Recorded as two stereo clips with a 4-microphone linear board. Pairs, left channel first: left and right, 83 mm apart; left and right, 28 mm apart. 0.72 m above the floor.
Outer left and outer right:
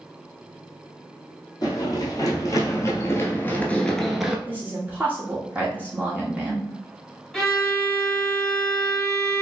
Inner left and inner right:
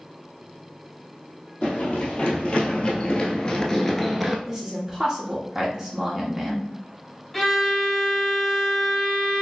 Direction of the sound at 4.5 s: 20° right (ahead or behind).